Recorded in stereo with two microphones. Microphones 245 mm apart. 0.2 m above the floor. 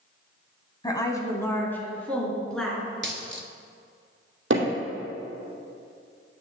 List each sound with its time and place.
0.8 s a woman speaking: 15° left (ahead or behind), 1.4 m; by 2.8 s centre (ahead or behind), 3 m
3.0 s a dropped coin: 45° right (ahead or behind), 1.0 m
4.5 s hammering: 55° right (ahead or behind), 2.5 m